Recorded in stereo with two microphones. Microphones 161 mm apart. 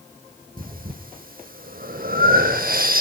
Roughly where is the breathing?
Right.